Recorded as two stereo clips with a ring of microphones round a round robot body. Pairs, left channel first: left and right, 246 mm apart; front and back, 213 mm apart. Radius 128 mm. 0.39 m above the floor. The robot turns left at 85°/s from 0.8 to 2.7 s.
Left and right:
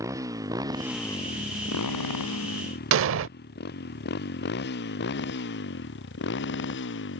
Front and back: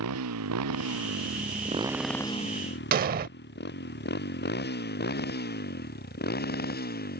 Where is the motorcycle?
170° right; by 7.2 s 45° left.